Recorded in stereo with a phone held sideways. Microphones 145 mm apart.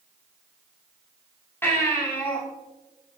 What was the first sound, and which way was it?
A baby crying, 15° left (ahead or behind).